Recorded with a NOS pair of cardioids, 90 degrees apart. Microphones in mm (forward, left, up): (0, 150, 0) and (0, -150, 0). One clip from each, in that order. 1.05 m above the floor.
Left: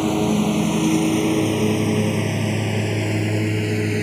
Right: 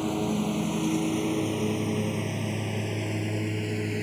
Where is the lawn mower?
55° left.